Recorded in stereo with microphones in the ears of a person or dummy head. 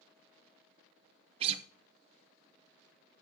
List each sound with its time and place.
1.4 s a guitar: 30° right (ahead or behind), 0.6 m